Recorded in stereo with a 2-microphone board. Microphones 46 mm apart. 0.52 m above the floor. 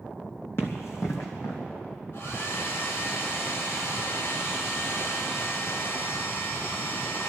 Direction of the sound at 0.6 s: 55° left (ahead or behind).